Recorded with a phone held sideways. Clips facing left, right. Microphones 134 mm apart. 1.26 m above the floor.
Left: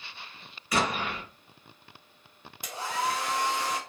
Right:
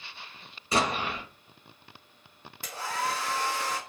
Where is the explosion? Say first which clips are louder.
Right 1 dB; 30° right (ahead or behind), 1.1 m.